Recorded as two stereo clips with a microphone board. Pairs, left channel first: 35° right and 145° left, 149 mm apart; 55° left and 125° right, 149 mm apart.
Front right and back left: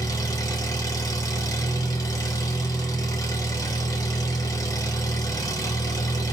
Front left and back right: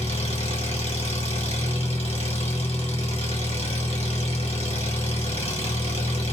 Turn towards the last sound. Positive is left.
turn(degrees=25)